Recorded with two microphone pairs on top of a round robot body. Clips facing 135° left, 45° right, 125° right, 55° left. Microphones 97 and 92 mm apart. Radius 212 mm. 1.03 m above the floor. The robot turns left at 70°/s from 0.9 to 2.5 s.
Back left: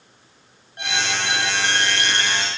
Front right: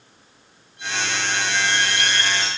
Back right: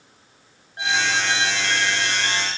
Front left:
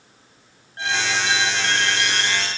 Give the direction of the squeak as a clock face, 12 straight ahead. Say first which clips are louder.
Back left 1 dB, back right 1 dB; 7 o'clock.